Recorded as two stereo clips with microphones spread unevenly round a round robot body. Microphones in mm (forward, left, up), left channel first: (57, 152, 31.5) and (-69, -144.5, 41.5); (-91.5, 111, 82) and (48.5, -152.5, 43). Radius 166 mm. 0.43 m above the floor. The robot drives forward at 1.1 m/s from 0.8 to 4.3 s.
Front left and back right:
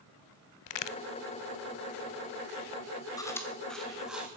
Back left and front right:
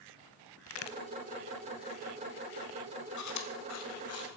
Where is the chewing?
145° left, 1.7 m; by 4.3 s 160° left, 2.5 m.